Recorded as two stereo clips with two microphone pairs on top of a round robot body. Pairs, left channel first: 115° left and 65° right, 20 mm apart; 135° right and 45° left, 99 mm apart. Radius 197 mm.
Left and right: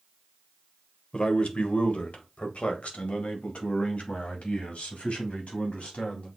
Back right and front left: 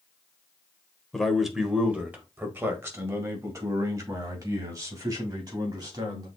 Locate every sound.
1.1 s a man speaking: 140° left, 1.4 m; by 6.3 s 95° left, 4 m